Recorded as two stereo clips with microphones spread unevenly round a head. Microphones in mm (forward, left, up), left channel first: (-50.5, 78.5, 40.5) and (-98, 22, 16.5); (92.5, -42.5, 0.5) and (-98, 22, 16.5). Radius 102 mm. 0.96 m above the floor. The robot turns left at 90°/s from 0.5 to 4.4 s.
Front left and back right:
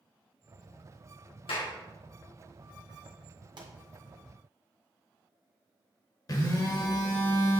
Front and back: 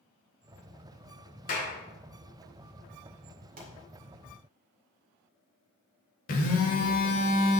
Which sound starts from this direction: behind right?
A pop, at 3.6 s.